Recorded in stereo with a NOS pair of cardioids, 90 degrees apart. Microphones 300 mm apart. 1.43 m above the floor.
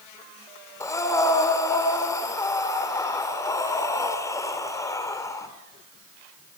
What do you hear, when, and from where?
0.8 s breathing: 10° left, 4.5 m